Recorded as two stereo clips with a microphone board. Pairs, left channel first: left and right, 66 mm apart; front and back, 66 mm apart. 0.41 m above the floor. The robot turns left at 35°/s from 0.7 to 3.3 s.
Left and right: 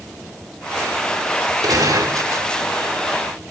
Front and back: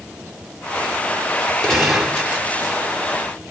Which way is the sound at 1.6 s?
85° right.